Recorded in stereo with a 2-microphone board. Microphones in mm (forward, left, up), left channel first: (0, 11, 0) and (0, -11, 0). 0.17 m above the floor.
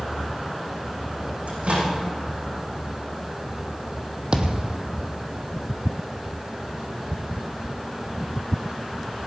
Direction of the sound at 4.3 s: 40° right (ahead or behind).